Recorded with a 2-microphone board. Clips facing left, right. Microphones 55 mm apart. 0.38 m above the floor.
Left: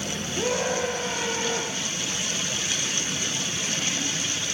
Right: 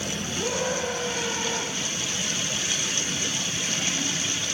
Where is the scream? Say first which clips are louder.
Left 3 dB; 85° left, 8 m.